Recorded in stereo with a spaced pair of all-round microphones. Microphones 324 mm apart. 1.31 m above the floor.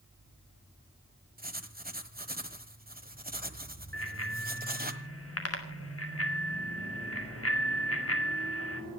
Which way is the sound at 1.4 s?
30° right (ahead or behind).